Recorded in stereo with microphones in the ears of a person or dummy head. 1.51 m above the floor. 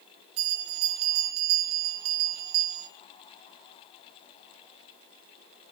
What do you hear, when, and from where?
0.4 s a bell: 75° right (ahead or behind), 1.8 m